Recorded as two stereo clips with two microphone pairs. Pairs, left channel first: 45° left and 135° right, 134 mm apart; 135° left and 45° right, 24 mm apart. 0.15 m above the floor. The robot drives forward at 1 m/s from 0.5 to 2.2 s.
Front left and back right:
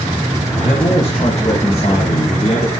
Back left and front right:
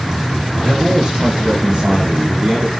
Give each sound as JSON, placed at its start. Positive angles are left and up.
{"t": 0.6, "sound": "a man speaking", "azimuth_deg": 10, "distance_m": 5.5}